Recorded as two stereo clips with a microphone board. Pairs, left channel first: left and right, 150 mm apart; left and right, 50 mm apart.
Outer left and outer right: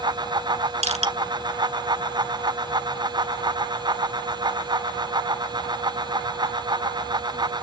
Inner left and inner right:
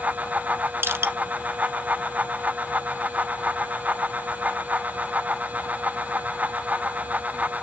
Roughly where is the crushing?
Right.